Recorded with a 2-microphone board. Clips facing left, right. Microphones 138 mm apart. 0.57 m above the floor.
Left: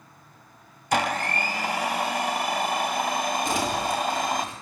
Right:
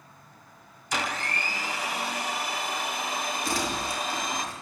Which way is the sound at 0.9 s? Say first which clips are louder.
Left 7 dB; 55° left (ahead or behind).